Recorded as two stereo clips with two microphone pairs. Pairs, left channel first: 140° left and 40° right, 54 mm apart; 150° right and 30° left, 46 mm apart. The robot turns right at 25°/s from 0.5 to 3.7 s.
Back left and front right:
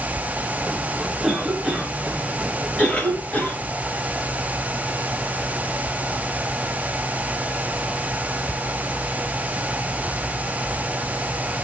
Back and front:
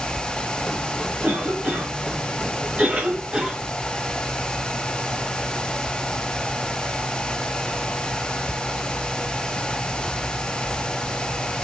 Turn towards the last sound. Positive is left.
turn(degrees=100)